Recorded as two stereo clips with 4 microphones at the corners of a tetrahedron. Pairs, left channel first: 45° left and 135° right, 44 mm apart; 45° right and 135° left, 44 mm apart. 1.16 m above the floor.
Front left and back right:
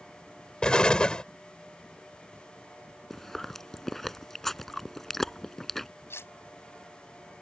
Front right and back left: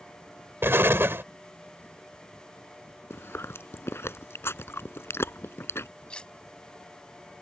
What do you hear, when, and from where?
0.6 s an explosion: 115° left
3.1 s chewing: 40° right
6.1 s cutlery clinking: 20° left